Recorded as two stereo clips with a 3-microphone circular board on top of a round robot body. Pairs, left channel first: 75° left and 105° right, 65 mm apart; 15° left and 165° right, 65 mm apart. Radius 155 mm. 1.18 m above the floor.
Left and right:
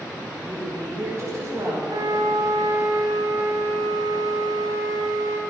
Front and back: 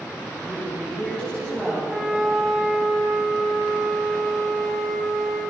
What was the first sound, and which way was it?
A woman speaking, 60° right.